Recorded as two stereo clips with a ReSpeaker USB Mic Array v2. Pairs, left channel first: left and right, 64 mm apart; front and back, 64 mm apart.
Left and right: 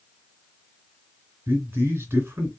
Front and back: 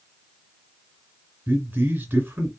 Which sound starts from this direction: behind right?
A man speaking, at 1.5 s.